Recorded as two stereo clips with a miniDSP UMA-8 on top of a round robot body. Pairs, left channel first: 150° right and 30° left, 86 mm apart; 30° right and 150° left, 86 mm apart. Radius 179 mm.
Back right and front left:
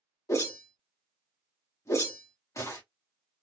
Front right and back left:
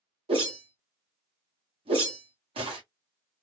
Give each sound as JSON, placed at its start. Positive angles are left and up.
{"t": 0.3, "sound": "a whoosh", "azimuth_deg": 150, "distance_m": 0.7}